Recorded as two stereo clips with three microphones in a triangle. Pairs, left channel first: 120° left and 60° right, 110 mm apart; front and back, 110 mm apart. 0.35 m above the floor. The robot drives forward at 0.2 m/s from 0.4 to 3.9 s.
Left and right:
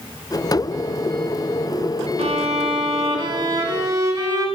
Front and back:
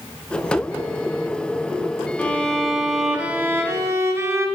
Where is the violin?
75° right, 0.5 m; by 4.5 s 115° right, 0.5 m.